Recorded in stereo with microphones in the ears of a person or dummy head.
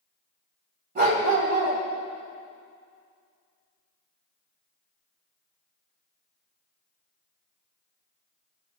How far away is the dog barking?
About 2 m.